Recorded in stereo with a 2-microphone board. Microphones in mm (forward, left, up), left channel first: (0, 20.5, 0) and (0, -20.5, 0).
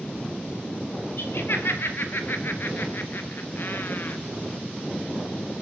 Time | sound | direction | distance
1.2 | laughter | 65° left (ahead or behind) | 4.5 m